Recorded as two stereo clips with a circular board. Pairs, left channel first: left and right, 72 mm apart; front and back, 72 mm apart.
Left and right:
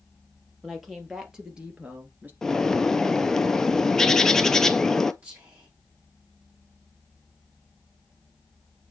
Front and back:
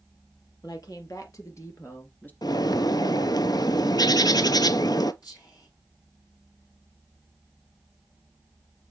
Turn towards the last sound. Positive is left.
turn(degrees=-25)